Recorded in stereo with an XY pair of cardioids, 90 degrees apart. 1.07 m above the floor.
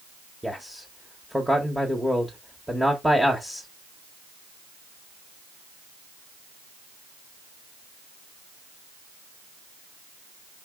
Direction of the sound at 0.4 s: 5° right.